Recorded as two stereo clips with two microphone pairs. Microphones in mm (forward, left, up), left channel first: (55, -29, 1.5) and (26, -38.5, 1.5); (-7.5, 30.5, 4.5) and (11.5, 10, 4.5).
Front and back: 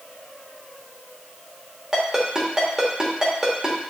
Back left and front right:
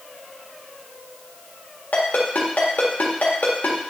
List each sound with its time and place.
1.9 s a ringtone: 125° left, 1.9 m